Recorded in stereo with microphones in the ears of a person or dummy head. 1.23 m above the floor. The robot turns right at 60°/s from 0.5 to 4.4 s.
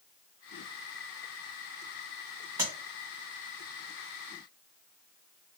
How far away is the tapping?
About 2 m.